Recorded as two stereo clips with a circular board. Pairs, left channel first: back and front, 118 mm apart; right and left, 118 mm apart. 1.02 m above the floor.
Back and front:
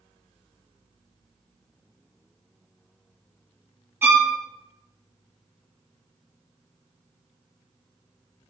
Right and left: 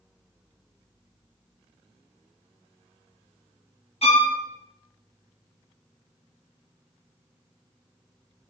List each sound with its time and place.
4.0 s a violin: 70° right, 1.4 m